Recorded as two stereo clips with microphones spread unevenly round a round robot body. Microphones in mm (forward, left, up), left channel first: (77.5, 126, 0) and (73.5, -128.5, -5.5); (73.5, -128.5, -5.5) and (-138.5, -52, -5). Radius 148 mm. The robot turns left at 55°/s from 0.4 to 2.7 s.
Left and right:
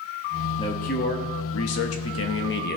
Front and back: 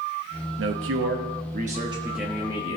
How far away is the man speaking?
About 1.1 m.